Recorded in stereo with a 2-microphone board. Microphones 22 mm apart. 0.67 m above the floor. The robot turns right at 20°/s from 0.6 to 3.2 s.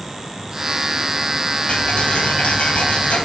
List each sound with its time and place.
1.7 s ticking: 60° left, 1.9 m; by 3.2 s 90° left, 1.9 m